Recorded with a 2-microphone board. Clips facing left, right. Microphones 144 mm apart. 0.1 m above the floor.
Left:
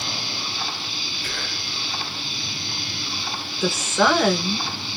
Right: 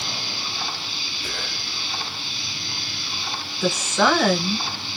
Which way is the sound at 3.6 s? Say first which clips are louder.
Even; 5° left (ahead or behind).